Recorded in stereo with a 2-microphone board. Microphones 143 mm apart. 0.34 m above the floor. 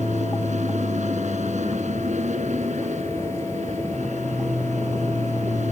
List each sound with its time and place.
0.0 s an aircraft: 55° right (ahead or behind)